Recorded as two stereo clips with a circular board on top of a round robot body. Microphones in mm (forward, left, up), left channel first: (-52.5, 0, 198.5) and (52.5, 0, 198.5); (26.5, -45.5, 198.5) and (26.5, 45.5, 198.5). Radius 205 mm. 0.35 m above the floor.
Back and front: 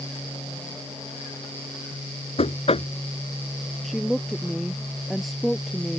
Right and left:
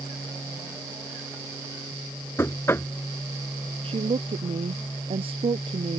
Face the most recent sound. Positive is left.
turn(degrees=90)